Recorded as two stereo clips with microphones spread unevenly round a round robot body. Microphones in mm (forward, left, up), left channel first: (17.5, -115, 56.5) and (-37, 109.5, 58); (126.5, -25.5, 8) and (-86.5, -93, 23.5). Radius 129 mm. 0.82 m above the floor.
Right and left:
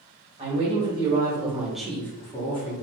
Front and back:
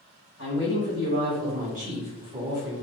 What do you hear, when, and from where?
0.4 s a woman speaking: 160° left, 1.4 m; by 2.7 s 85° right, 0.9 m